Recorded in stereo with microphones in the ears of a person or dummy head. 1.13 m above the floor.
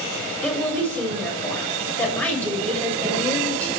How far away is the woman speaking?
About 6 m.